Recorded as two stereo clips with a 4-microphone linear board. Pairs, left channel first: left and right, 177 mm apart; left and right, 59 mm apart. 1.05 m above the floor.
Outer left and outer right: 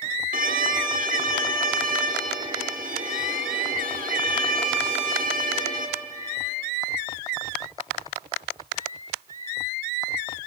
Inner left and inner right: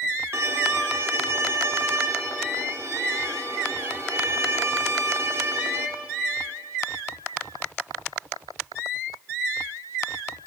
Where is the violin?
50° right (ahead or behind), 1.2 m.